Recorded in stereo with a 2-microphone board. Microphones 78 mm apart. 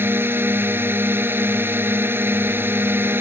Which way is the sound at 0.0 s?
25° right (ahead or behind).